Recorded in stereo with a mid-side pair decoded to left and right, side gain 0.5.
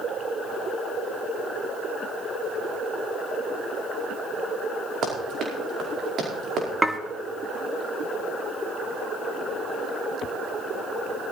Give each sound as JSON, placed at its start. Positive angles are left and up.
{"t": 5.0, "sound": "running footsteps", "azimuth_deg": -60, "distance_m": 4.5}
{"t": 6.8, "sound": "dishes clattering", "azimuth_deg": -10, "distance_m": 1.5}